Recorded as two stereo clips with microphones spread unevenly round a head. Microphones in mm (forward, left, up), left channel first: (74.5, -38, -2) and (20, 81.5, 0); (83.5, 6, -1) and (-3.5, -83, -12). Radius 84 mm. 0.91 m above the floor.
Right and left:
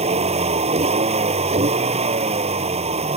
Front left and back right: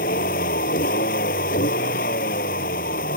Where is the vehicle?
75° left.